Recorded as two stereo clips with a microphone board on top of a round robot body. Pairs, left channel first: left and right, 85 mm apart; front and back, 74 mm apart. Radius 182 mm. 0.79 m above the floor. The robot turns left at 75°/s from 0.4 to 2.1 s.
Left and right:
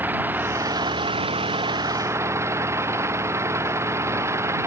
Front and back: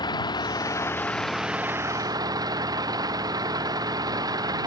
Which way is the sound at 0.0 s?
20° right.